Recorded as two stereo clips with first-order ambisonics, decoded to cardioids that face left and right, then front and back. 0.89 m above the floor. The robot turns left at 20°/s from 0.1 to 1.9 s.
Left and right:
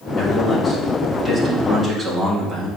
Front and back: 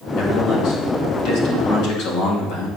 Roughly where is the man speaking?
Ahead left.